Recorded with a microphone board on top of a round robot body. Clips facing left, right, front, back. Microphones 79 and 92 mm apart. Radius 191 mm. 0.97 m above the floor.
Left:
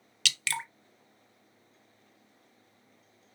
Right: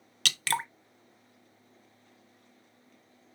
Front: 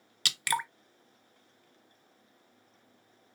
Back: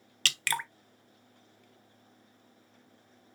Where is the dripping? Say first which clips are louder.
Right 4 dB, front 2 dB; 70° right, 0.8 m.